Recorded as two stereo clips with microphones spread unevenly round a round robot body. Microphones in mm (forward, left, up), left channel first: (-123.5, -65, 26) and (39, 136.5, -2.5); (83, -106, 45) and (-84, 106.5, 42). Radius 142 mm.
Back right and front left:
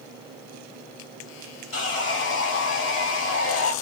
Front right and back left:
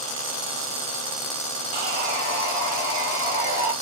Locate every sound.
1.7 s sawing: 170° right, 1.4 m